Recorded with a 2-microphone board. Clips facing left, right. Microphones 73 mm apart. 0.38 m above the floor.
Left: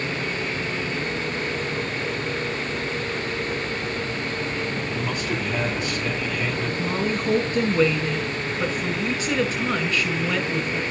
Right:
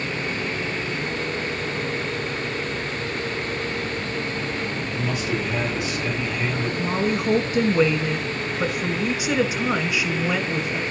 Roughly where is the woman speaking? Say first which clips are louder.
Right 3 dB; centre.